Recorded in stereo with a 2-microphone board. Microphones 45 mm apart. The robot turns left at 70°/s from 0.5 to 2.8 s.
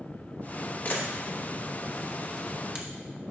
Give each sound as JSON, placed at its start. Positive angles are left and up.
{"t": 0.8, "sound": "a camera shutter", "side_deg": 35, "distance_m": 1.0}